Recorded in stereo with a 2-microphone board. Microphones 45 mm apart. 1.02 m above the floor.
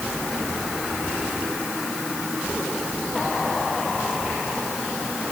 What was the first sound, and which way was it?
Only background noise.